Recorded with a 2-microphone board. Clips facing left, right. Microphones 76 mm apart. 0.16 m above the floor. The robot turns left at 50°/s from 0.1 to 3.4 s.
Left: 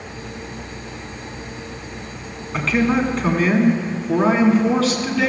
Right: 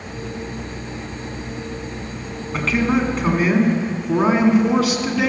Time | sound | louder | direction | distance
2.5 | a man speaking | left 1 dB | 5° left (ahead or behind) | 1.6 m